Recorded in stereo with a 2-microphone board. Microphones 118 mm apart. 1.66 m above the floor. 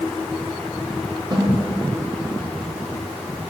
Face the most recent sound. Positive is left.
turn(degrees=-40)  # may be behind; listen again after turning